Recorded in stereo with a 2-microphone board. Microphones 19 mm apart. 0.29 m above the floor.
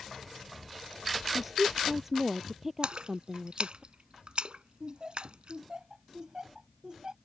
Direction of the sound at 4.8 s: 40° right (ahead or behind).